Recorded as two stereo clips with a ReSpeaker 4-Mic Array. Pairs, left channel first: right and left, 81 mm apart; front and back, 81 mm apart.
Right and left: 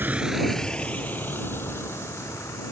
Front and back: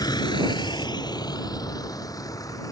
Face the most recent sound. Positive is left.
turn(degrees=-40)